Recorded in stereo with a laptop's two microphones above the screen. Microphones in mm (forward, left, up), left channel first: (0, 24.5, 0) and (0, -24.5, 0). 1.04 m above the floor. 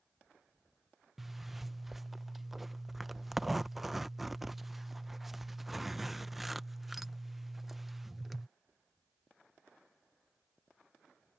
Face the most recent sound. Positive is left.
turn(degrees=-5)  # may be behind; listen again after turning